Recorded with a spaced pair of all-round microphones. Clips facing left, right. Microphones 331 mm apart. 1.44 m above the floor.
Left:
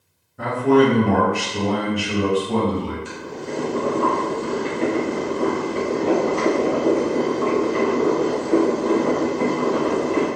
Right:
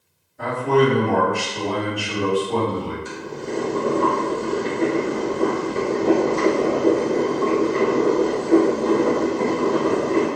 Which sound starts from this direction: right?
Boiling, at 3.0 s.